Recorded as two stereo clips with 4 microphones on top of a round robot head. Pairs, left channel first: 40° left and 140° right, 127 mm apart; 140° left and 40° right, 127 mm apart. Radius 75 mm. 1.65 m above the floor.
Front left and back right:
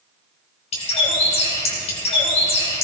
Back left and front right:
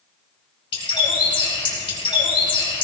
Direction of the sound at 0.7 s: 85° left.